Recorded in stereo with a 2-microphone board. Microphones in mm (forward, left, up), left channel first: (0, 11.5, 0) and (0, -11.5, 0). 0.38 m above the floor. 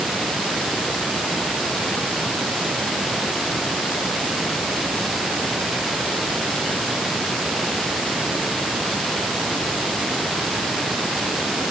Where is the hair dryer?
I don't hear a hair dryer.